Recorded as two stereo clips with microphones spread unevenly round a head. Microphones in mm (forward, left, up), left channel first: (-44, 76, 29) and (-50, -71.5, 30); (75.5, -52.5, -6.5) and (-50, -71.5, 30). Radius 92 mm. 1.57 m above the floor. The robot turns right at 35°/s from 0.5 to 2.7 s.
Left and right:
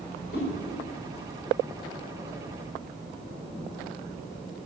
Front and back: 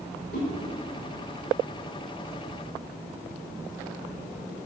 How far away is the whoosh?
About 6 m.